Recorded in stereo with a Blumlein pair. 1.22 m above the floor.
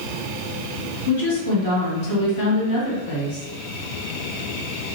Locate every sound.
1.1 s a woman speaking: 65° left, 1.3 m